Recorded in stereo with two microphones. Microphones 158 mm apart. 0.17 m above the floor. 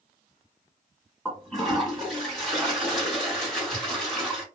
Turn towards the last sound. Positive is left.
turn(degrees=5)  # may be behind; listen again after turning